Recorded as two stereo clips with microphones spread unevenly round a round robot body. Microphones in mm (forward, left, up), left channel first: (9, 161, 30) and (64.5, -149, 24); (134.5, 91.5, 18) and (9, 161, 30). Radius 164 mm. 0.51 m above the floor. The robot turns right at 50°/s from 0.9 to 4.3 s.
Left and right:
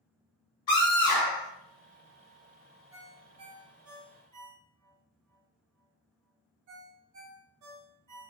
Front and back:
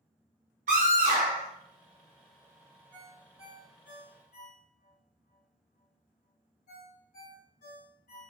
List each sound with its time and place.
0.7 s a scream: 140° left, 2 m; by 1.5 s 165° left, 2 m
2.9 s a ringtone: 115° right, 1.8 m; by 8.3 s 45° right, 1.8 m